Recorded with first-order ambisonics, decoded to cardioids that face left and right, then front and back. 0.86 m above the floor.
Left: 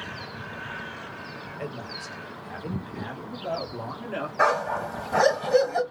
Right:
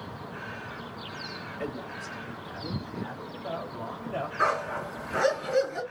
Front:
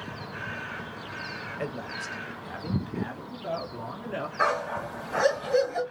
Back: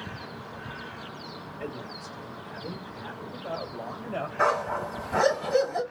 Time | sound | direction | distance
1.6 | a man speaking | 10° left | 0.7 m
4.4 | a dog barking | 100° left | 1.9 m